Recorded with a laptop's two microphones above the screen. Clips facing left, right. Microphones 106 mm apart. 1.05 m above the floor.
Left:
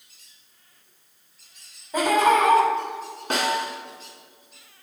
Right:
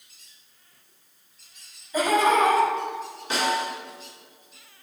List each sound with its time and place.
1.9 s laughter: 65° left (ahead or behind), 3 m
3.3 s a snare drum: 50° left (ahead or behind), 1.8 m